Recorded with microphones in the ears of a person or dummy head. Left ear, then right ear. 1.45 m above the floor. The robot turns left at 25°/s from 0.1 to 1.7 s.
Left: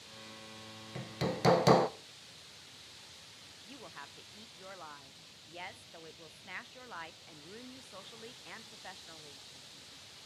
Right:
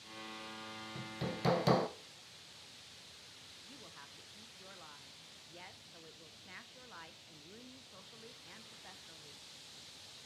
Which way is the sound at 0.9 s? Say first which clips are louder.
Left 7 dB; 25° left (ahead or behind).